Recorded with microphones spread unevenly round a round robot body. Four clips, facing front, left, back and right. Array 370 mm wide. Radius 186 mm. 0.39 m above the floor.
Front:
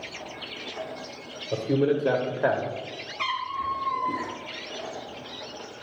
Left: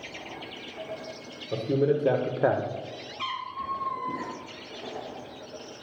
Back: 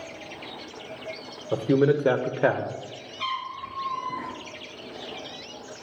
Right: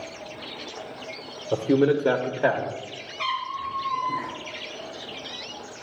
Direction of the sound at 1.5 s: 135° right.